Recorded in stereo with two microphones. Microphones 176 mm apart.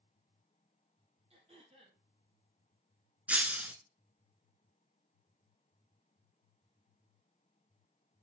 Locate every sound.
1.3 s throat clearing: 35° right (ahead or behind), 3 m
3.3 s breaking glass: 10° right (ahead or behind), 1.0 m